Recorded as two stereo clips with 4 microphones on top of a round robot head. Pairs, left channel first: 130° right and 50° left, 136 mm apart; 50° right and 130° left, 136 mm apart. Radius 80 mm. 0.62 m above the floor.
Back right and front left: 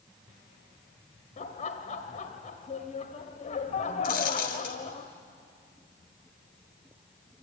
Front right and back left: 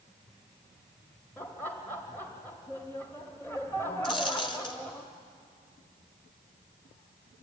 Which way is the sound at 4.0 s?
105° right.